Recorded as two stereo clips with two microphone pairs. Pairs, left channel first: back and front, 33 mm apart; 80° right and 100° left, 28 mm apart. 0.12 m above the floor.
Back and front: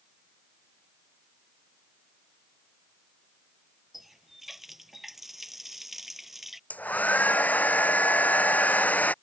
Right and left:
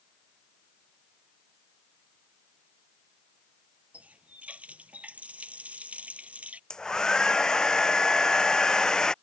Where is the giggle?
I don't hear a giggle.